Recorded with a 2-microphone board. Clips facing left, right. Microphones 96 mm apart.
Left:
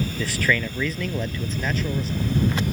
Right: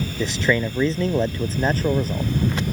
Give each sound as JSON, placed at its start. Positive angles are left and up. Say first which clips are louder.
{"t": 0.2, "sound": "a man speaking", "louder": "right 4 dB", "side_deg": -20}